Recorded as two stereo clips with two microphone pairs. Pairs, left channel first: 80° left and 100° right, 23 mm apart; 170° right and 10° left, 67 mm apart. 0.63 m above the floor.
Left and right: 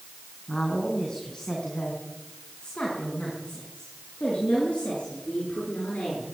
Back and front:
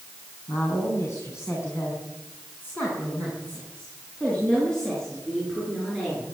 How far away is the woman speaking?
About 6 m.